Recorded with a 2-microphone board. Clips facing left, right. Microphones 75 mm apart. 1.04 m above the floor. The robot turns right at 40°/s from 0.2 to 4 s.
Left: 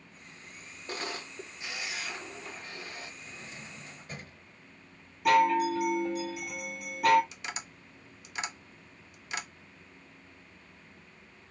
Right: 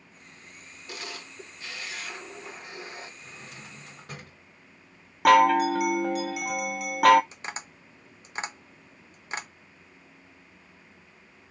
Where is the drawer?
110° right, 2.0 m; by 4.4 s 80° right, 2.0 m.